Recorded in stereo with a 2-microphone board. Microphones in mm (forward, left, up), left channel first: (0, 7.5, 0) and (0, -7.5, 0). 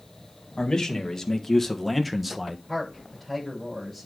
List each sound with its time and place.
0.6 s a man speaking: 45° left (ahead or behind), 1.9 m; by 2.6 s 25° right (ahead or behind), 1.2 m
2.7 s a man speaking: centre (ahead or behind), 7.5 m